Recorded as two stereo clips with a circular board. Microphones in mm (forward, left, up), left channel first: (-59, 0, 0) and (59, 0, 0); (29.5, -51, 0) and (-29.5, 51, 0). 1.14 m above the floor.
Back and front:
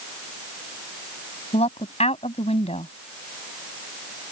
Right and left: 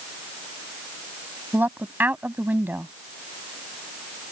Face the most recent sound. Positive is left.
turn(degrees=-165)